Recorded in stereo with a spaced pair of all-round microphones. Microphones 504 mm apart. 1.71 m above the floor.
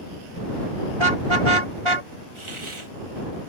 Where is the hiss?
70° right (ahead or behind).